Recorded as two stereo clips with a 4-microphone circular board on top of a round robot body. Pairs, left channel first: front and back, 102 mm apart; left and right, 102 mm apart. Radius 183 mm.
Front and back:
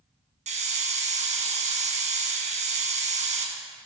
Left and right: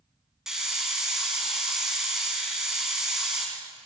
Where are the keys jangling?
I don't hear keys jangling.